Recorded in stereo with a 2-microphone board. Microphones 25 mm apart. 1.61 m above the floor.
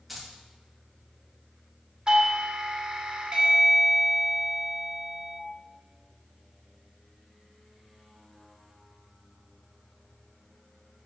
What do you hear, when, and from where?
0.1 s keys jangling: 10° right (ahead or behind), 2 m
2.1 s a doorbell: 35° right (ahead or behind), 1.3 m